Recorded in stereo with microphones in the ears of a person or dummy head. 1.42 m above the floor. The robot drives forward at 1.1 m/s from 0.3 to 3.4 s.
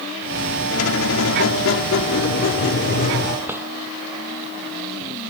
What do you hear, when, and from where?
0.7 s a squeak: 80° left; by 3.4 s 45° left (ahead or behind)
3.5 s a drawer: 10° right (ahead or behind)